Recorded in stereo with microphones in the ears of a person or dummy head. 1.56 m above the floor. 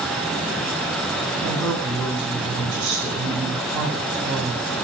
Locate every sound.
1.4 s a woman speaking: 5° right (ahead or behind), 8.5 m